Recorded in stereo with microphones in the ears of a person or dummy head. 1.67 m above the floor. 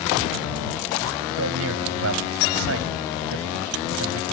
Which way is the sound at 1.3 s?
75° right (ahead or behind).